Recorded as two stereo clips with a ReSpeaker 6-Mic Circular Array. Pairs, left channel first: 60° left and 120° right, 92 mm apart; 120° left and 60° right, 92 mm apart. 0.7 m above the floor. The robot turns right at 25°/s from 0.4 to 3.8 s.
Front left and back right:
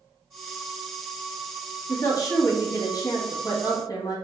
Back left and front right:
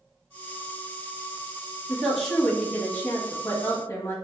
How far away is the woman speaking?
About 1.0 m.